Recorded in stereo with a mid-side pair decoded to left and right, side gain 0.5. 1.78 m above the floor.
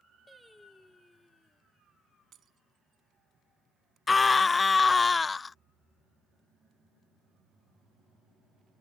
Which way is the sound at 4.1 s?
30° left.